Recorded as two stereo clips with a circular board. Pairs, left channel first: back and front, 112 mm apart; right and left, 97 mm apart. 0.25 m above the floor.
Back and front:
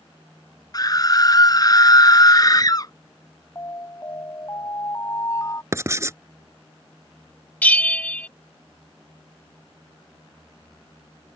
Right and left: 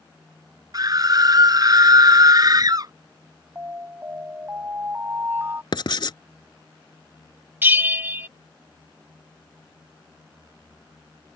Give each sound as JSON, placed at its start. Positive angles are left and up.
{"t": 0.7, "sound": "a scream", "azimuth_deg": 130}
{"t": 3.5, "sound": "an alarm", "azimuth_deg": 140}
{"t": 5.7, "sound": "writing", "azimuth_deg": -60}
{"t": 7.6, "sound": "a bell", "azimuth_deg": 125}